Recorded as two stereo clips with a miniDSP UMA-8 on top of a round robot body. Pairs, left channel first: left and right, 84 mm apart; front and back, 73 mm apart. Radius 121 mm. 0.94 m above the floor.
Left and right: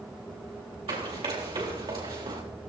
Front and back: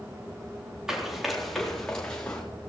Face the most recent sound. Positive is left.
turn(degrees=-75)